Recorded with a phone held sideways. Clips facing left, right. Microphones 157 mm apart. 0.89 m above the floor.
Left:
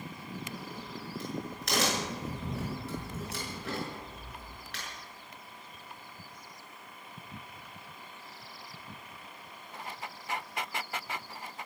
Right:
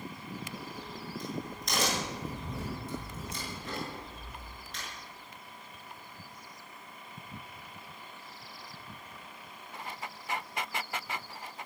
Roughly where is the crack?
Left.